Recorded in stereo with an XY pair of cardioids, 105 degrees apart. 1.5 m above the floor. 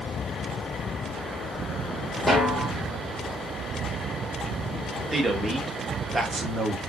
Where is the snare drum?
5° right, 5 m.